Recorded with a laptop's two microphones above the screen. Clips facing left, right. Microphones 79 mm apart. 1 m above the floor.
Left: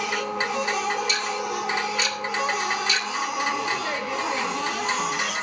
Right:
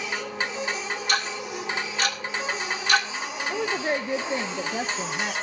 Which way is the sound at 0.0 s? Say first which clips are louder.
Left 4 dB; 75° left (ahead or behind).